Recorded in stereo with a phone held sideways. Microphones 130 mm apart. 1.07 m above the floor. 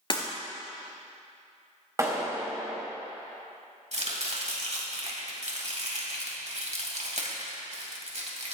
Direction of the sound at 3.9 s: 60° right (ahead or behind).